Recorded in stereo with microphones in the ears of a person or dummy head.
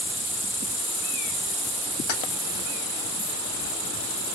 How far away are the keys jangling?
About 2 m.